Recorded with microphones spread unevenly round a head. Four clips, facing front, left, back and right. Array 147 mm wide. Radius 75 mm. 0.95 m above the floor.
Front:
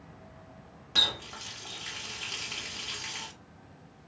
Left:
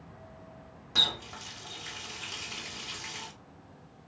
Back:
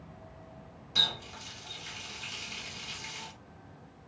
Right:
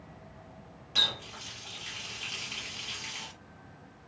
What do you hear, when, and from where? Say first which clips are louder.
0.9 s a running tap: left 1 dB, front 3 dB; 35° left, 1.6 m